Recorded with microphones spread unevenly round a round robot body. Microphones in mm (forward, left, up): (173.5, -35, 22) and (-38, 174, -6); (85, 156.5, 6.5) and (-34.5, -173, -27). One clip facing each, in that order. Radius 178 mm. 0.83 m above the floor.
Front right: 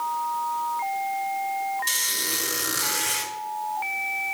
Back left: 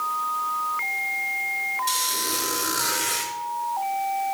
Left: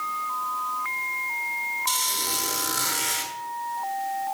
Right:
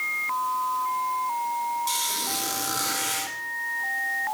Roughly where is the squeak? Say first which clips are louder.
Back left 3 dB, even; ahead.